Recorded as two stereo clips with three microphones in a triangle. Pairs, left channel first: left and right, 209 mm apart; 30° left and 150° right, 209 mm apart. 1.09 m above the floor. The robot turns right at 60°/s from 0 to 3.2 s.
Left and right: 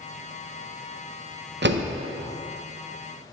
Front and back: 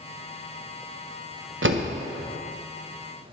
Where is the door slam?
125° right, 0.6 m; by 1.9 s 110° right, 0.6 m.